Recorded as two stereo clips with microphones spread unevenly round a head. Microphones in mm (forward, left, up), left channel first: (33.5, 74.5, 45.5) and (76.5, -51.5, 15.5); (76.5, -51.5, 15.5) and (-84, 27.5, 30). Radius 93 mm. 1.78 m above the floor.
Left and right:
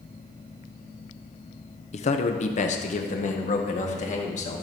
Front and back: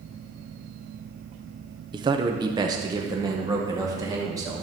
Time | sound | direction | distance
1.9 | a man speaking | 90° left | 0.8 m